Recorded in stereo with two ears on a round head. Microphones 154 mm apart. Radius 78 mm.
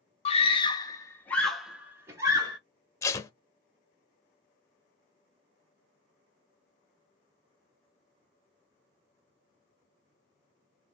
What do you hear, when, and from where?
0.2 s a scream: 35° left (ahead or behind), 0.8 m; by 2.6 s 25° right (ahead or behind), 0.9 m
3.0 s tape being pulled: 15° left (ahead or behind), 0.6 m